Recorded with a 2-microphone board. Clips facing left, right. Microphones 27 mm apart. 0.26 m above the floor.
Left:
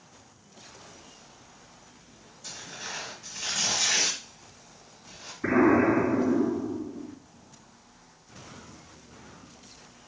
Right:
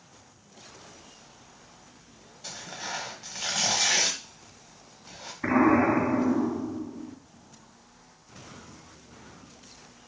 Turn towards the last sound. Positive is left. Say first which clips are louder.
# even
turn(degrees=-40)  # may be behind; listen again after turning